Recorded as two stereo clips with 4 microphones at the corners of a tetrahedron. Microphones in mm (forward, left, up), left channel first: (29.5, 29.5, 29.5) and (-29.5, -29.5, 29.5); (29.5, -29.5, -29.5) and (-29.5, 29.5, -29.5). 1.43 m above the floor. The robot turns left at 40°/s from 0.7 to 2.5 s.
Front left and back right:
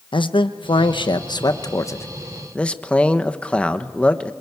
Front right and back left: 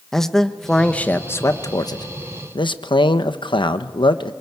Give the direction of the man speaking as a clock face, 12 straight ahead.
11 o'clock.